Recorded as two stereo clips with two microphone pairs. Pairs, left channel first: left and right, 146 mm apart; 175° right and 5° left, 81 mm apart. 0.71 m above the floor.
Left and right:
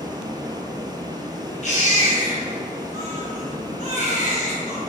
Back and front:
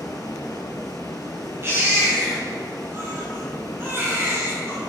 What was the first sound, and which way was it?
Running water, 145° right.